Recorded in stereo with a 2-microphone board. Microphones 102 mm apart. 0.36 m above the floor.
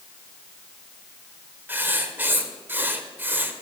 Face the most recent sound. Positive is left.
turn(degrees=-20)  # may be behind; listen again after turning